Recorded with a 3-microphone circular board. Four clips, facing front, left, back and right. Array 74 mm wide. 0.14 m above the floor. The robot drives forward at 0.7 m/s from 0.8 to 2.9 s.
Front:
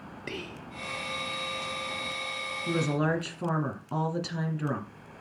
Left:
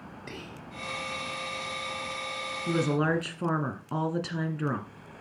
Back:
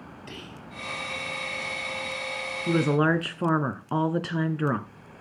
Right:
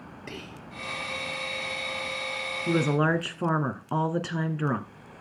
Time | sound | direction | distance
0.3 | whispering | 10° right | 2.5 m
2.7 | a woman speaking | 150° right | 1.4 m